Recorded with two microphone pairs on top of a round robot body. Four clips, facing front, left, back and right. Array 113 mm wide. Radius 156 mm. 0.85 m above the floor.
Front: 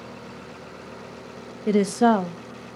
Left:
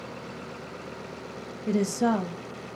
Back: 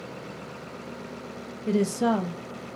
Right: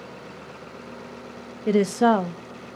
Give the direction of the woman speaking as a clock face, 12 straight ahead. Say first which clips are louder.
Right 6 dB, front 5 dB; 2 o'clock.